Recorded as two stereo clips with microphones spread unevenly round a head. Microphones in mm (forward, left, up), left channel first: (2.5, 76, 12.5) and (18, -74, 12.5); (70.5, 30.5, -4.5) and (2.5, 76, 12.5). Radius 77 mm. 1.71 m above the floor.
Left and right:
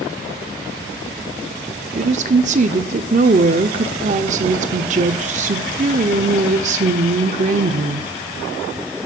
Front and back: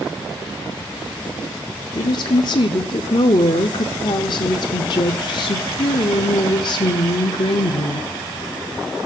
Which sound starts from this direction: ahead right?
A woman speaking, at 1.9 s.